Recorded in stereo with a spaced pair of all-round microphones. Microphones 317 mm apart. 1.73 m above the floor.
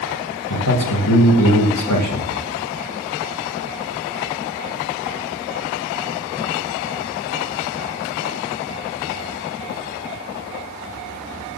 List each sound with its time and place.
0.5 s a man speaking: 65° left (ahead or behind), 2 m